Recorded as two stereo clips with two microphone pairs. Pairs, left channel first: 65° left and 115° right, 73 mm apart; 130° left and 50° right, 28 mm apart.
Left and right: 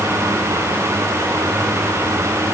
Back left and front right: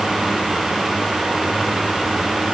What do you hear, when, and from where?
Only background noise.